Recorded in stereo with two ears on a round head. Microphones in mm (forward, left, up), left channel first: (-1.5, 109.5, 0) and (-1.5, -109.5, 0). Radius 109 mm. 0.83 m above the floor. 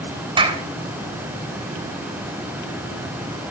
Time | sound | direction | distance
0.4 | a clap | 20° right (ahead or behind) | 3 m